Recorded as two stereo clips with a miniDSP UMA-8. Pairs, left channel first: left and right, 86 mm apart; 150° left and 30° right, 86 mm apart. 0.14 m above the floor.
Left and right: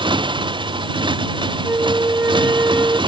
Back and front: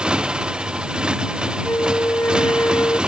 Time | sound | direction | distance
0.0 | a motorcycle | 110° right | ?
1.6 | a flute | 150° right | ?